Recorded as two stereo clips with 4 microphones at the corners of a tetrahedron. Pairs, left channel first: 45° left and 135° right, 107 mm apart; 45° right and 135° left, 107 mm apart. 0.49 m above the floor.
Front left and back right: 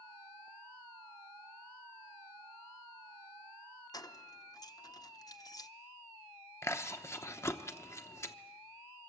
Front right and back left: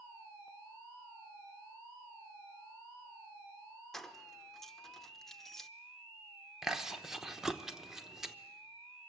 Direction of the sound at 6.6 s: 55° left.